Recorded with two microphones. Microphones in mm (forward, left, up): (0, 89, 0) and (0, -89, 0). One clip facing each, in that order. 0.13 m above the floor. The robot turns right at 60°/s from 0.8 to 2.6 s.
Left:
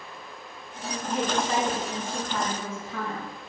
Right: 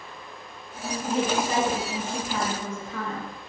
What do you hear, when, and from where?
1.1 s a woman speaking: 25° right (ahead or behind), 1.4 m; by 3.3 s 5° left (ahead or behind), 1.4 m